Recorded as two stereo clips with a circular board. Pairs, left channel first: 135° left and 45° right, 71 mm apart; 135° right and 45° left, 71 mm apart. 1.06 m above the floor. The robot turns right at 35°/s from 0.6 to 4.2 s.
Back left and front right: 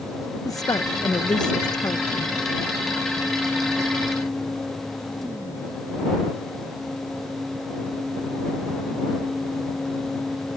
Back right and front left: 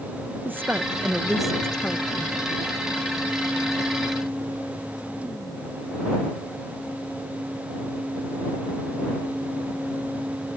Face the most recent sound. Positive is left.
turn(degrees=-130)